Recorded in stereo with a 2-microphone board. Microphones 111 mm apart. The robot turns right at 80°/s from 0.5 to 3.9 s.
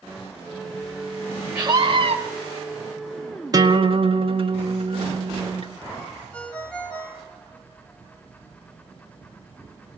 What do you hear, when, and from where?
1.6 s a scream: 155° right, 3 m; by 2.1 s 105° right, 3 m
3.5 s a guitar: 35° right (ahead or behind), 1.5 m; by 5.7 s 55° right (ahead or behind), 1.5 m
6.3 s a ringtone: 10° left (ahead or behind), 4.5 m